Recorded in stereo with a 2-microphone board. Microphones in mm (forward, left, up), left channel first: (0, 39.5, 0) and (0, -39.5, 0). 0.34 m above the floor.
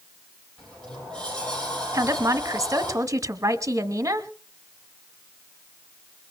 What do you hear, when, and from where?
0.6 s a sliding door: 10° left (ahead or behind), 7.5 m
1.9 s a woman speaking: 40° right (ahead or behind), 1.0 m